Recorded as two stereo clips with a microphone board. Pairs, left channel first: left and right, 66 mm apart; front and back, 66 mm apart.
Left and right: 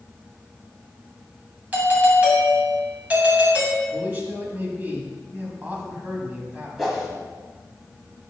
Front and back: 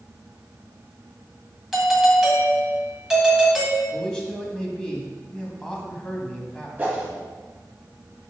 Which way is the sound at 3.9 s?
70° right.